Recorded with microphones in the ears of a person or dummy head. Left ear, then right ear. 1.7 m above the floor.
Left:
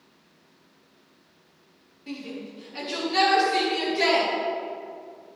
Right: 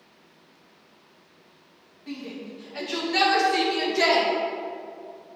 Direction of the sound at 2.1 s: 5° right (ahead or behind).